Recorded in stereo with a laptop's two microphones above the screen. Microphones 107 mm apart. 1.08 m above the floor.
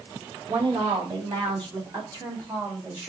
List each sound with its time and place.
0.5 s a woman speaking: 65° right (ahead or behind), 1.7 m; by 3.1 s 30° right (ahead or behind), 2.5 m